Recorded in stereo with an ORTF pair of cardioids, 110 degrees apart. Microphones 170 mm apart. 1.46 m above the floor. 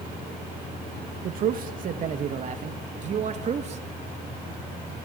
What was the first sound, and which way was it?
A man speaking, 60° right.